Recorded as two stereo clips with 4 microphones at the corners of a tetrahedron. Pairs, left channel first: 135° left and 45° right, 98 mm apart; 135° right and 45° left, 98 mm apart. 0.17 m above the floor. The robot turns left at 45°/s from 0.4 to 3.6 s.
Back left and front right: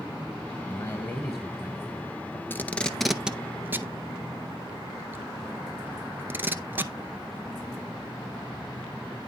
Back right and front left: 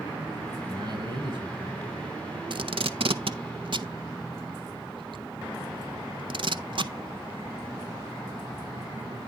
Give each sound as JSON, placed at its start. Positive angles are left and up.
{"t": 0.7, "sound": "a man speaking", "azimuth_deg": 75, "distance_m": 2.0}
{"t": 2.5, "sound": "tape being pulled", "azimuth_deg": 70, "distance_m": 0.5}